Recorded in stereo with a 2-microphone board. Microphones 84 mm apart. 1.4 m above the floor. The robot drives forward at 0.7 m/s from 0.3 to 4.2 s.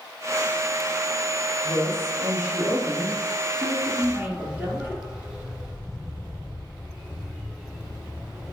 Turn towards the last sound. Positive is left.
turn(degrees=-10)  # may be behind; listen again after turning